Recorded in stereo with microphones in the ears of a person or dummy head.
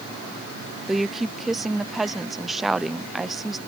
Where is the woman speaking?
Centre (ahead or behind).